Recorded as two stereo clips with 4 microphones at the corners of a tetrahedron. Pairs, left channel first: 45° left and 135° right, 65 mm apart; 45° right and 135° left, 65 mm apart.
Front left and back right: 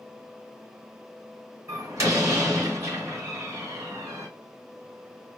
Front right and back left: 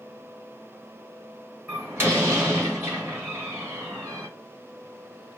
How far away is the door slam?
About 2.5 m.